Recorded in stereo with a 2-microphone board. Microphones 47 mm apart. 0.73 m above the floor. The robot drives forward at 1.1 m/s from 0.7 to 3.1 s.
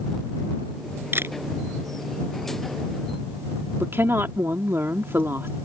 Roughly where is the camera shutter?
Right.